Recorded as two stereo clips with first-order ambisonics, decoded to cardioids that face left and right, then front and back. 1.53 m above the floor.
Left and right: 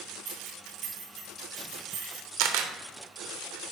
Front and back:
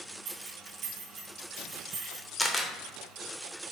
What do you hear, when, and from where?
0.2 s keys jangling: 130° right, 1.5 m; by 2.3 s 120° right, 2.5 m
2.4 s a camera shutter: 80° right, 0.7 m